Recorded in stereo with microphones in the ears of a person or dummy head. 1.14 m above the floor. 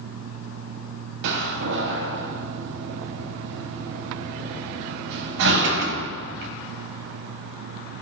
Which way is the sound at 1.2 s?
70° right (ahead or behind).